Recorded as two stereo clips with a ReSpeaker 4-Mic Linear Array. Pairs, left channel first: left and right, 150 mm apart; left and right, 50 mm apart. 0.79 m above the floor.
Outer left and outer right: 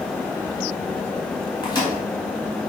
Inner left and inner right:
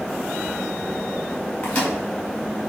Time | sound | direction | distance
1.6 | a microwave | 30° left (ahead or behind) | 4.5 m